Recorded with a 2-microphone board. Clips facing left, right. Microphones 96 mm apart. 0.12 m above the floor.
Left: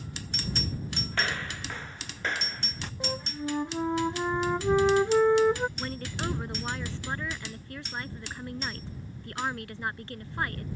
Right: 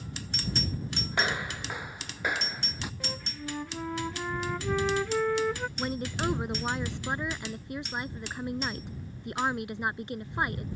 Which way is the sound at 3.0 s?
25° left (ahead or behind).